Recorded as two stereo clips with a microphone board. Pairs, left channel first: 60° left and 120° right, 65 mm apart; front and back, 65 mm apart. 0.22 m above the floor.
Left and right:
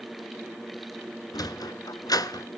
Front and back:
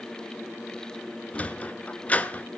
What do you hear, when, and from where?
1.3 s a sliding door: 70° left, 0.9 m